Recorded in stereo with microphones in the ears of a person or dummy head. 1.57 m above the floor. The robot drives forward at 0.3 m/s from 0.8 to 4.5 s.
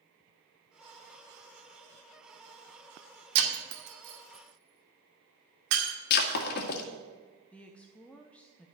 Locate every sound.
3.4 s breaking glass: 65° right (ahead or behind), 2 m
6.1 s breaking glass: 55° left (ahead or behind), 1.7 m
7.5 s a woman speaking: 5° left (ahead or behind), 0.8 m